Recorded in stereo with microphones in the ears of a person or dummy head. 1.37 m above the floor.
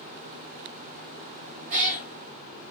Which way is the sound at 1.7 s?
40° right (ahead or behind).